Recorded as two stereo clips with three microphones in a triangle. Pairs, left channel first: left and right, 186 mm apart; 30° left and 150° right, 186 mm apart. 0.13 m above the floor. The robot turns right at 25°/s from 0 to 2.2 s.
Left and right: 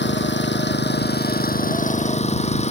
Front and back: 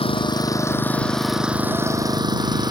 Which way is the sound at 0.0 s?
90° left.